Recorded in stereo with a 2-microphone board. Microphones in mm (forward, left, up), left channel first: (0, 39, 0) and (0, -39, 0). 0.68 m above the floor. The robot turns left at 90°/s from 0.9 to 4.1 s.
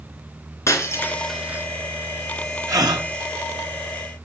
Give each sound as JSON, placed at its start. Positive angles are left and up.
{"t": 0.7, "sound": "breaking glass", "side_deg": 40, "distance_m": 3.5}
{"t": 2.7, "sound": "a gasp", "azimuth_deg": -45, "distance_m": 3.0}